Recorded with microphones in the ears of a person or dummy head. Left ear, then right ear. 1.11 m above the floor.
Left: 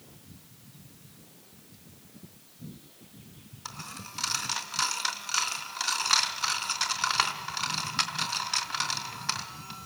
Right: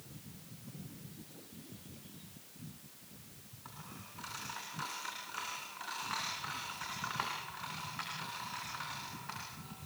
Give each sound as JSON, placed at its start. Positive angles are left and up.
{"t": 3.6, "sound": "a dropped coin", "side_deg": 80, "distance_m": 4.0}